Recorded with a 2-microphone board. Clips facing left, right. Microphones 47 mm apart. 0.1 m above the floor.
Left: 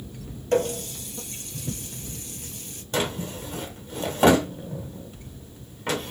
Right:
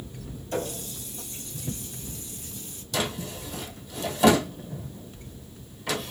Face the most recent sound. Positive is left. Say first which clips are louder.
# left 3 dB
turn(degrees=40)  # may be behind; listen again after turning